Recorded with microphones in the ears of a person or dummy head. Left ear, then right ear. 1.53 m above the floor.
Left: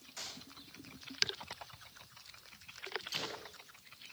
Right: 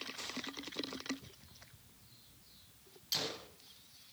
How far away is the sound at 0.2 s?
About 5 m.